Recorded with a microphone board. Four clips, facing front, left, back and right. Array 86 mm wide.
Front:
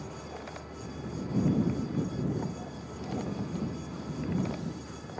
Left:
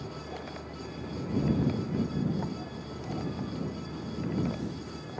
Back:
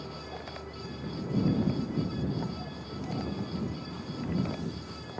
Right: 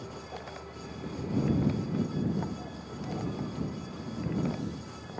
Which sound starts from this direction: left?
A vehicle, at 0.0 s.